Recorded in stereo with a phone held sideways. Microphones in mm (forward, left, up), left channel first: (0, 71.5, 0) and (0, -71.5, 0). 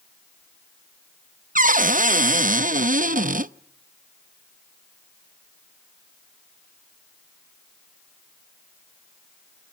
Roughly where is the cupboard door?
Right.